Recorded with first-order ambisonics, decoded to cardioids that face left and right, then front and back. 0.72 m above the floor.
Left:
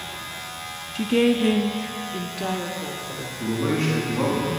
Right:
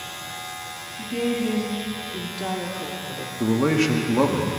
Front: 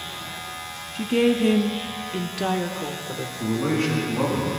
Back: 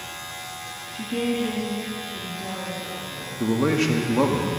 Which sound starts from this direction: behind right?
A man speaking, at 3.4 s.